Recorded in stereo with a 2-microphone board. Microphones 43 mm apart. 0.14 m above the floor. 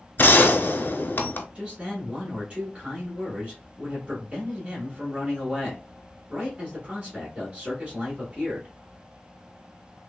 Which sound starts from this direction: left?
A gunshot, at 0.2 s.